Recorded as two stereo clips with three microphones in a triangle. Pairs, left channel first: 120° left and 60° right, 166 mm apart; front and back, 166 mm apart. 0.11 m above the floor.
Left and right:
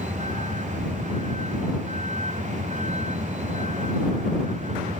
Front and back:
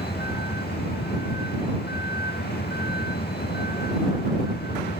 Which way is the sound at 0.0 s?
15° right.